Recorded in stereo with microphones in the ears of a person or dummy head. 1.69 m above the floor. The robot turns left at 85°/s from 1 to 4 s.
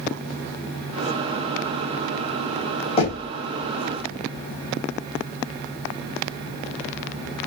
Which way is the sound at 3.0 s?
30° left (ahead or behind).